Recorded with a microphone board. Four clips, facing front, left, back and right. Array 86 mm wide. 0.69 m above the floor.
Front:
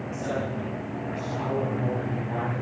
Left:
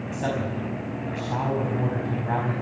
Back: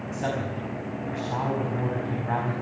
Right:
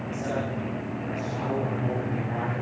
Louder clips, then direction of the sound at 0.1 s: Left 2 dB, back 1 dB; 115° left.